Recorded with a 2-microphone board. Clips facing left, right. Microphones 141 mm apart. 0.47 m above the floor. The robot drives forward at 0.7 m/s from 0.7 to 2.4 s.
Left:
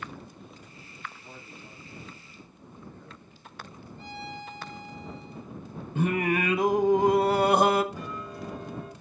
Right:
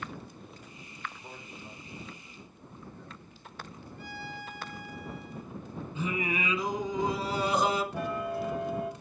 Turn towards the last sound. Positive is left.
turn(degrees=-65)  # may be behind; listen again after turning